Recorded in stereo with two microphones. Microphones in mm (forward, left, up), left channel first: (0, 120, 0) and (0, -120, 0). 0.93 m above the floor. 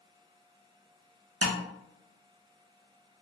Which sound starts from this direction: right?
Tapping, at 1.4 s.